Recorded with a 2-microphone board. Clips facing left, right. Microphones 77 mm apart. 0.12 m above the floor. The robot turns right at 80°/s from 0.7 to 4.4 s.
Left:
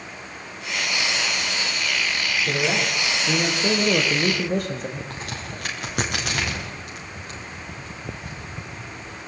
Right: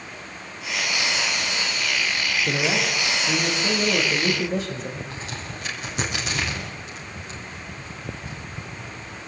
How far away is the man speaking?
About 6 m.